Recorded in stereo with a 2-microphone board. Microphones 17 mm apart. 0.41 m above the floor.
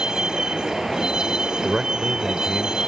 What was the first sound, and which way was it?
A vehicle, 45° right (ahead or behind).